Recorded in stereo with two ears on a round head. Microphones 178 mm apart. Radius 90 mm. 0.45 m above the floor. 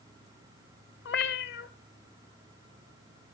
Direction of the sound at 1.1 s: 55° left (ahead or behind).